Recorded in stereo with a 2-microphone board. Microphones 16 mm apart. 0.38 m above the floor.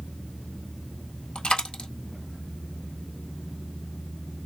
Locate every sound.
1.4 s a dropped coin: 80° left, 1.4 m